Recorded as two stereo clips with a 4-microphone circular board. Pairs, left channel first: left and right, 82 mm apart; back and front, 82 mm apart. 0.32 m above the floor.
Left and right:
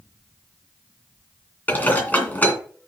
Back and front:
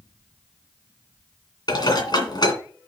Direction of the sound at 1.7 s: 160° left.